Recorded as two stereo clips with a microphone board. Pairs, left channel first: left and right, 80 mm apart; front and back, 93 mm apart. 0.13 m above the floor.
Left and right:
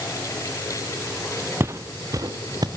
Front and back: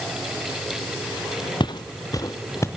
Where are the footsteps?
30° right, 1.0 m; by 2.7 s 60° right, 1.7 m.